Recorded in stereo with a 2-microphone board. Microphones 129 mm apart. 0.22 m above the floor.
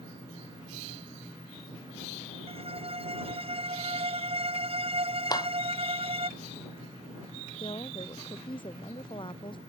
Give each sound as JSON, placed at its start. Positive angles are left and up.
{"t": 2.5, "sound": "a violin", "side_deg": -50}
{"t": 5.3, "sound": "a clap", "side_deg": 30}
{"t": 7.6, "sound": "a woman speaking", "side_deg": 40}